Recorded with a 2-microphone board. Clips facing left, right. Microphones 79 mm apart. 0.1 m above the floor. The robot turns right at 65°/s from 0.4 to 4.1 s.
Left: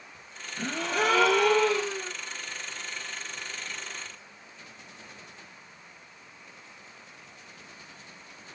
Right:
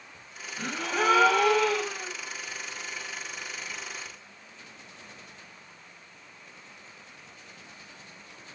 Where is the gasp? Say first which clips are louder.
Left 1 dB; 65° left, 2.0 m; by 2.1 s 165° left, 2.0 m.